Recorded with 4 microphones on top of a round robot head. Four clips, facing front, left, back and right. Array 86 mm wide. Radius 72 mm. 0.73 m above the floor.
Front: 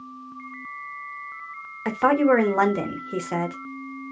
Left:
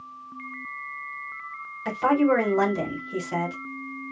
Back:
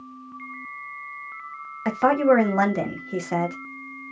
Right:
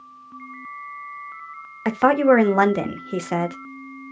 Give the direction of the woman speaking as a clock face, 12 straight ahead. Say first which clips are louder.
Right 5 dB, even; 3 o'clock.